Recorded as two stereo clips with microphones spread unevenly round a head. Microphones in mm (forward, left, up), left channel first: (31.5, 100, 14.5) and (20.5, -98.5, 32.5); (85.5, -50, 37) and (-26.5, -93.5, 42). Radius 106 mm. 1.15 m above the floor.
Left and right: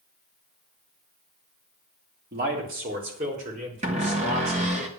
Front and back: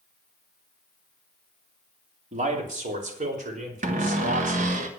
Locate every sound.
2.3 s a man speaking: 140° right, 3 m; by 4.8 s 155° right, 5 m
3.8 s a cupboard door: 155° right, 1.4 m